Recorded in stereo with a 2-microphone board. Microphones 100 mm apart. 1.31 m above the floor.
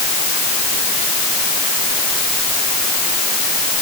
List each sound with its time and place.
Only background noise.